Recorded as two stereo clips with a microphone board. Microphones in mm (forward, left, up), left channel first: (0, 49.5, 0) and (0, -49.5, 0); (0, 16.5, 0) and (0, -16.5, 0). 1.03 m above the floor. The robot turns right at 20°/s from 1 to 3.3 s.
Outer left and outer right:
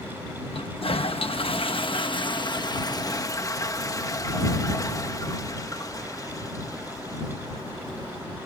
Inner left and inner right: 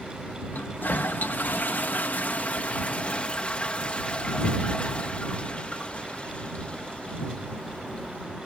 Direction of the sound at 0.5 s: 95° left.